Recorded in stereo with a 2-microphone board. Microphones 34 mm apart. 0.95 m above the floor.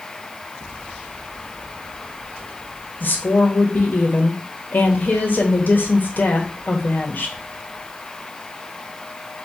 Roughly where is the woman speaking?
Left.